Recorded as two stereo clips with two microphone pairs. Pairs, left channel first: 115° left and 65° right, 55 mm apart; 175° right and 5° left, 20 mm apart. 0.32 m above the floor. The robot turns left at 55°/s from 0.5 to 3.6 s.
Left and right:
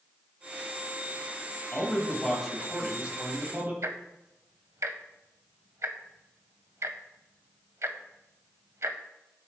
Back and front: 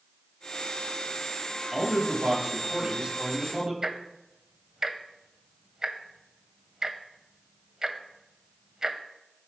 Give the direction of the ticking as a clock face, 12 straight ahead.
2 o'clock.